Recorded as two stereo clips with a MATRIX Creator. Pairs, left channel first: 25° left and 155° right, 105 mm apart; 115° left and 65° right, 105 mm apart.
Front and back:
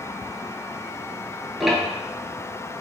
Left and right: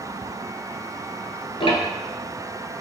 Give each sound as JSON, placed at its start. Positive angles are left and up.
{"t": 1.6, "sound": "ticking", "azimuth_deg": 115, "distance_m": 0.7}